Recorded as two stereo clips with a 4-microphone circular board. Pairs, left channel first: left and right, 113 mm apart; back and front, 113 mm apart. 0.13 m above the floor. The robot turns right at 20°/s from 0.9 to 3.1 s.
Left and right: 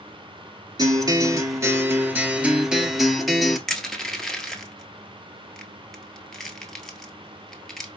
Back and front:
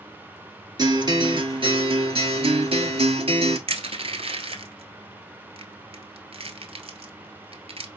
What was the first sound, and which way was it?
A guitar, 45° right.